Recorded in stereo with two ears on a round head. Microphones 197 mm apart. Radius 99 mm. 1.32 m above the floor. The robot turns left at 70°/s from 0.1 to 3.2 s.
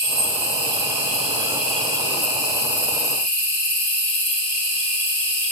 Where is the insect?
65° right, 2.5 m; by 5.5 s 75° left, 2.5 m.